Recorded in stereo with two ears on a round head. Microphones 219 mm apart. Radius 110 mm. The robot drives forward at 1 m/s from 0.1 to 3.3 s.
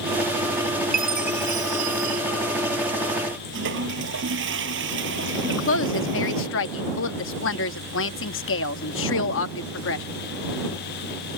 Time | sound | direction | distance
0.9 | a chime | 35° right (ahead or behind) | ?
3.5 | a toilet flushing | 50° right (ahead or behind) | ?
5.5 | a woman speaking | 55° left (ahead or behind) | ?